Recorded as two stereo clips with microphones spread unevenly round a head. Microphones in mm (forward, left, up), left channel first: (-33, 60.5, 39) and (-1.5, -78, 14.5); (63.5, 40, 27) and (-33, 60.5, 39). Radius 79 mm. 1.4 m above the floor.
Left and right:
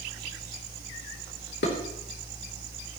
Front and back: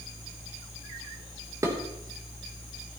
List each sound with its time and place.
1.6 s dishes clattering: 110° left, 3 m